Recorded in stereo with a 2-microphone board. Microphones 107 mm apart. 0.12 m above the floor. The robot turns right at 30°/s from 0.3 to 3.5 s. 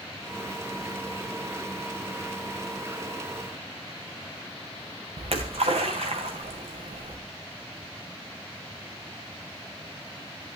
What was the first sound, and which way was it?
A splash, 70° right (ahead or behind).